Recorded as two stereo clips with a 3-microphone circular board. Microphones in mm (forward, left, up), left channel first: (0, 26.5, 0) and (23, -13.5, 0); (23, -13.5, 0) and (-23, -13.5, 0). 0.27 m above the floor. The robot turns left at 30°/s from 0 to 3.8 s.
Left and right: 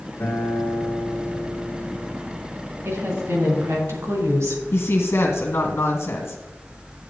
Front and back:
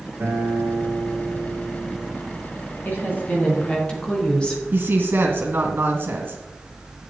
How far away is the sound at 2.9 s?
About 3.5 m.